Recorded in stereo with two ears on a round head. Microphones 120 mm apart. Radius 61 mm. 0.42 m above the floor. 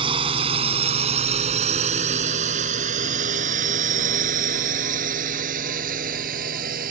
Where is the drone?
40° right (ahead or behind); by 6.9 s 75° right (ahead or behind).